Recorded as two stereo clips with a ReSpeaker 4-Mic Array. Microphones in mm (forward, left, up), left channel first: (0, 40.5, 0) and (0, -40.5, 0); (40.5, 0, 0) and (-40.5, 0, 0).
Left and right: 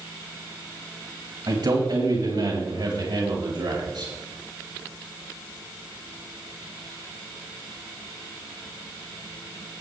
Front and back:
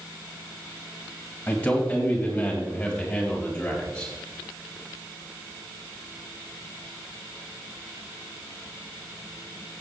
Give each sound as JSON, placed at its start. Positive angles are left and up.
{"t": 1.5, "sound": "a man speaking", "azimuth_deg": -70, "distance_m": 3.5}